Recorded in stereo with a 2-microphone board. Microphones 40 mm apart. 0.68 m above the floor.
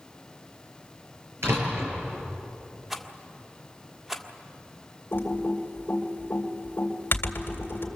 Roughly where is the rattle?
Centre.